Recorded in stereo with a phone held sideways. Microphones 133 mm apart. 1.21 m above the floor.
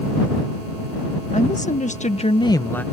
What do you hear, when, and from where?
1.3 s a woman speaking: 65° left (ahead or behind); by 2.8 s 10° left (ahead or behind)